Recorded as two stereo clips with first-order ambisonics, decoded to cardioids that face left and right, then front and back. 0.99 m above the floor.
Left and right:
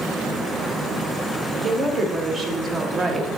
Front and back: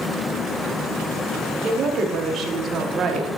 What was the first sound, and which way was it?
A woman speaking, 145° right.